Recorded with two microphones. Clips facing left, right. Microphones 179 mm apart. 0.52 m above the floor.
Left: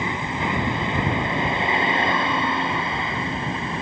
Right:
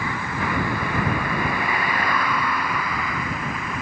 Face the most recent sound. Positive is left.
turn(degrees=25)  # may be behind; listen again after turning